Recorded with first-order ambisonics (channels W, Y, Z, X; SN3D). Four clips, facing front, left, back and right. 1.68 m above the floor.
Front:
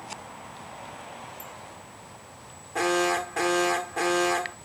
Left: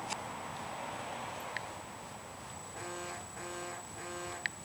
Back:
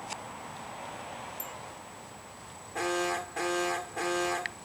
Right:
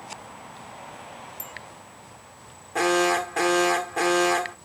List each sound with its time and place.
1.4 s a bicycle bell: 110° right
2.8 s an alarm: 70° right